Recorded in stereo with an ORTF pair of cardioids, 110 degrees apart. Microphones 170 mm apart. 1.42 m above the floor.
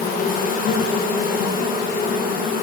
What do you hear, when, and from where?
0.0 s an insect: 55° left, 1.2 m